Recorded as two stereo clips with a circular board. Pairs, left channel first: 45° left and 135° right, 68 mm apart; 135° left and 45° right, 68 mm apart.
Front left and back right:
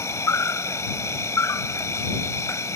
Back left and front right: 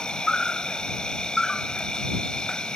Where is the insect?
60° left.